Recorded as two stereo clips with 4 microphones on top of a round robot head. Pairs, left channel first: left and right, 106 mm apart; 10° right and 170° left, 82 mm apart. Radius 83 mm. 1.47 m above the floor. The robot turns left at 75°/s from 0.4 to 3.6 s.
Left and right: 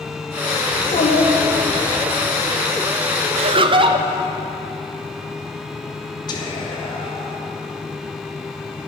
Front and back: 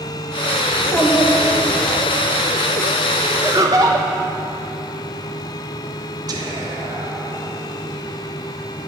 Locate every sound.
0.7 s a child speaking: 100° left, 3 m; by 2.0 s 5° left, 3 m
3.4 s laughter: 110° right, 0.9 m; by 4.1 s 125° right, 0.9 m
6.3 s whispering: 135° left, 3 m